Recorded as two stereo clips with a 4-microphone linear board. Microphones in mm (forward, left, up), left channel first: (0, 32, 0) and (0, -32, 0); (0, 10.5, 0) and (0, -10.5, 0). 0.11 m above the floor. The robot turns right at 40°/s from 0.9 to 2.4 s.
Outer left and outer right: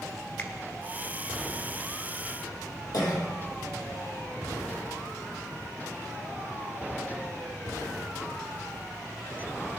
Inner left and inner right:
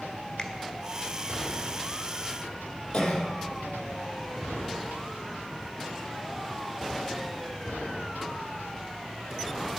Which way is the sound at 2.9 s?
70° left (ahead or behind).